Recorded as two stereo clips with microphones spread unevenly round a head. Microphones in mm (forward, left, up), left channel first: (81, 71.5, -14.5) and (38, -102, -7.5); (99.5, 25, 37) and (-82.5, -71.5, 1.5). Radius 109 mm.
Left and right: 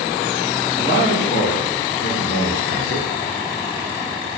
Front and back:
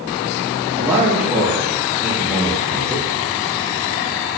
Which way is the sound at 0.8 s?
130° left.